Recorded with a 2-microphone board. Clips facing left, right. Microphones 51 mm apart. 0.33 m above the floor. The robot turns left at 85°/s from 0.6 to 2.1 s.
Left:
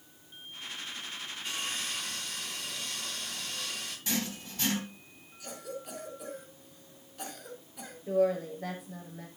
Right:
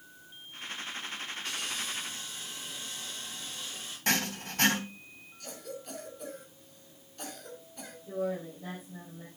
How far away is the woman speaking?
About 6.5 m.